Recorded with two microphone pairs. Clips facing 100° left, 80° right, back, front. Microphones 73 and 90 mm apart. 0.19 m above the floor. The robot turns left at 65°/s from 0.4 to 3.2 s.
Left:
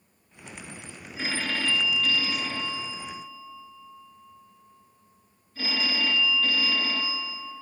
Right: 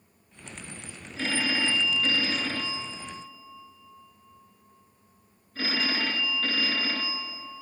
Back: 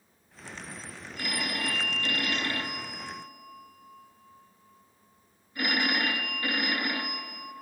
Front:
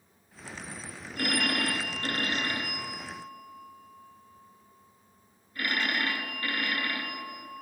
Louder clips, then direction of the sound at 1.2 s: Right 2 dB, front 5 dB; 25° left.